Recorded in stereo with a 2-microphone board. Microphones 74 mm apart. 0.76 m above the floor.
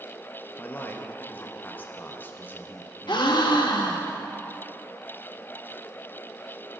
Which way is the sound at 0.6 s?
25° left (ahead or behind).